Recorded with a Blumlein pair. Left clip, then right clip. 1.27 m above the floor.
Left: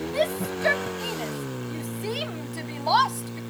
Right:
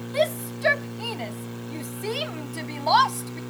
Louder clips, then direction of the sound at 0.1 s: Right 2 dB; 5° right.